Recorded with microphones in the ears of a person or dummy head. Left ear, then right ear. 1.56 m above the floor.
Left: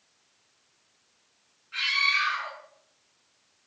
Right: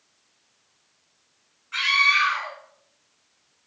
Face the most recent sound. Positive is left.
turn(degrees=-50)  # may be behind; listen again after turning